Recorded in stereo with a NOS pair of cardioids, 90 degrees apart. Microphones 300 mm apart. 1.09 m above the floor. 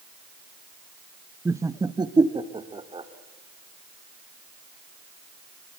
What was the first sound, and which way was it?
Laughter, 10° right.